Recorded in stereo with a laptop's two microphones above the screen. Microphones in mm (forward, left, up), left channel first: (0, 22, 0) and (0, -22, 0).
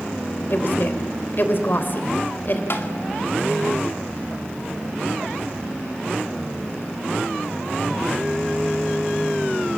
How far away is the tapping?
About 2.5 m.